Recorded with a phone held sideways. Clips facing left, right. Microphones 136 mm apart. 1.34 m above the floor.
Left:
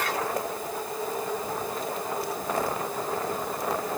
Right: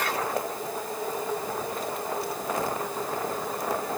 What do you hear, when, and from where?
Only background noise.